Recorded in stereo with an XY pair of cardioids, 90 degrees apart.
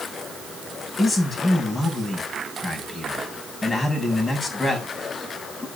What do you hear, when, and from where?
1.0 s a man speaking: 20° left, 7 m